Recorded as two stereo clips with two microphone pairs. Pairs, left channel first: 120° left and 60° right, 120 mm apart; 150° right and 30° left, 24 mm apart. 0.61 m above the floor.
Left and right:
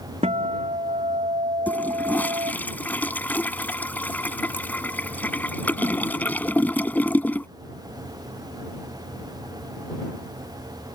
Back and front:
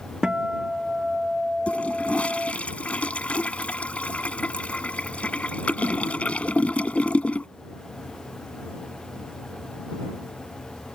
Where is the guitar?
30° right.